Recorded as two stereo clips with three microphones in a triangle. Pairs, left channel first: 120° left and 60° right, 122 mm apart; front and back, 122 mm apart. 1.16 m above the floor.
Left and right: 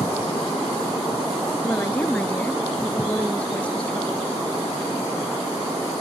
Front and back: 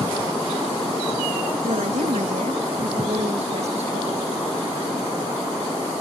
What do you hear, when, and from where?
1.6 s a woman speaking: 165° right; by 4.3 s 160° right